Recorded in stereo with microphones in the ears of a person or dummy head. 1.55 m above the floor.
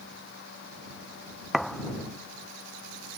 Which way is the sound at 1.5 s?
5° left (ahead or behind).